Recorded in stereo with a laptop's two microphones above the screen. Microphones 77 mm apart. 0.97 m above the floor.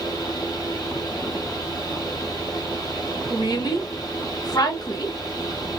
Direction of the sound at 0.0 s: 55° left (ahead or behind).